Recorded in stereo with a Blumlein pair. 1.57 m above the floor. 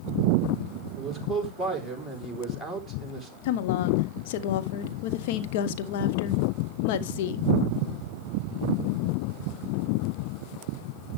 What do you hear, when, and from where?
0.9 s a man speaking: straight ahead, 4 m
3.4 s a woman speaking: 50° left, 0.9 m